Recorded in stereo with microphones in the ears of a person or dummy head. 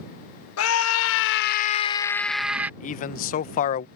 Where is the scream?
80° left; by 2.7 s 10° right (ahead or behind).